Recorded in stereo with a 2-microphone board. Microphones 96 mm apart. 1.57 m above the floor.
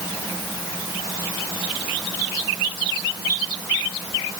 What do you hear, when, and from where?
Only background noise.